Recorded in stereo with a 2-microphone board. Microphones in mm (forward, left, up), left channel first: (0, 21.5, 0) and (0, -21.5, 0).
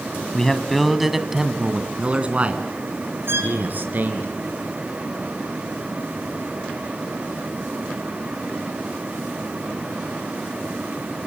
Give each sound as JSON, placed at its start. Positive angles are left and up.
{"t": 0.3, "sound": "a man speaking", "side_deg": 15, "distance_m": 1.9}
{"t": 3.3, "sound": "a violin", "side_deg": -70, "distance_m": 3.0}